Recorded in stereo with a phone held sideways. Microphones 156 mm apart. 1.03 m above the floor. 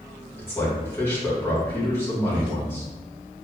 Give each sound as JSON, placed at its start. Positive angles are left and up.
{"t": 0.4, "sound": "a man speaking", "side_deg": 15, "distance_m": 1.4}